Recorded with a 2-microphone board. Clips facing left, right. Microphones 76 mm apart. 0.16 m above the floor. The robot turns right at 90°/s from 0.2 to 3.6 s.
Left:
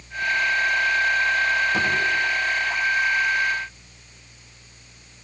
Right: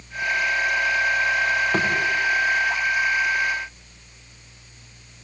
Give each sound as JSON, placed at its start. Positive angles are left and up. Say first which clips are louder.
{"t": 1.7, "sound": "a thud", "louder": "right 1 dB", "side_deg": -85, "distance_m": 9.0}